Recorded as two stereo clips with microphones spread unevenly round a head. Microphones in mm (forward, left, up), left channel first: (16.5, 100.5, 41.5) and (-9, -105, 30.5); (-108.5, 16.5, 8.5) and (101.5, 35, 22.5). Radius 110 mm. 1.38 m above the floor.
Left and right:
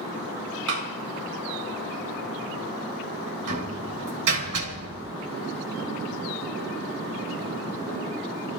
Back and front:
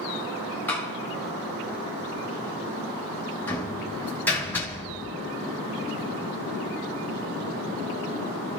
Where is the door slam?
95° right, 2.5 m.